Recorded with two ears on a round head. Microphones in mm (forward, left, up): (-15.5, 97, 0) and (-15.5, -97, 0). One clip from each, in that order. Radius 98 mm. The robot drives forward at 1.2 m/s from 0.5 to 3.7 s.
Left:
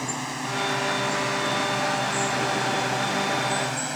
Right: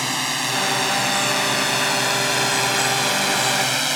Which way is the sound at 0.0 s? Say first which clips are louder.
Right 8 dB; 80° right.